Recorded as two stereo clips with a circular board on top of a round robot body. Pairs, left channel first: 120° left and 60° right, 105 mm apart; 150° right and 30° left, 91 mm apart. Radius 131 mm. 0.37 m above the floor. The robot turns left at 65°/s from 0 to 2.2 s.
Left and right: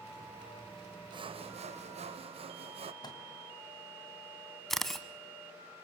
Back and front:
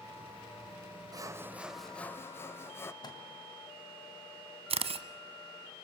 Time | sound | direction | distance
1.1 | sawing | 15° right | 0.8 m
3.0 | a microwave | 170° left | 2.5 m
4.7 | a camera shutter | 30° left | 1.0 m